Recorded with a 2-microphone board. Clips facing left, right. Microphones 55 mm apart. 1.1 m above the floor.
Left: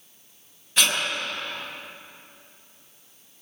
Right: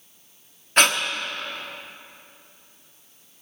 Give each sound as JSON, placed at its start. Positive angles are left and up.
{"t": 0.8, "sound": "breathing", "side_deg": -55, "distance_m": 1.0}